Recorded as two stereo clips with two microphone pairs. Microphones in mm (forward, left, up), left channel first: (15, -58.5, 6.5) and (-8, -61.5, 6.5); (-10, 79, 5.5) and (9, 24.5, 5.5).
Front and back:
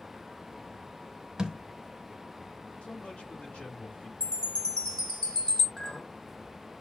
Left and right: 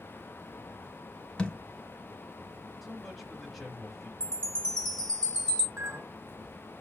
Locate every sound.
1.4 s a thud: 165° left, 1.1 m
2.8 s a man speaking: 25° left, 2.5 m
4.2 s a chime: 40° left, 3 m
5.8 s a clink: 65° right, 1.4 m